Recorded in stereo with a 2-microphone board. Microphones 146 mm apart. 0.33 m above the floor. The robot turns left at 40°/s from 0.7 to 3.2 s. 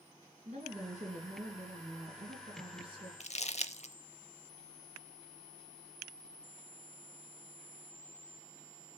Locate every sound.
0.5 s a woman speaking: 55° right, 4.5 m; by 3.1 s 150° right, 4.5 m
3.2 s crumpling: 55° left (ahead or behind), 0.5 m